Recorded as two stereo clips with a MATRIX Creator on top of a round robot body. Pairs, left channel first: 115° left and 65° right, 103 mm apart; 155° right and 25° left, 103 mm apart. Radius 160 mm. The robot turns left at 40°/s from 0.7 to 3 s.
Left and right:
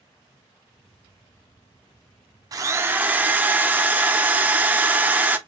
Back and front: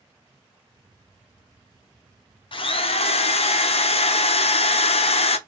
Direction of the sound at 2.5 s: 120° right.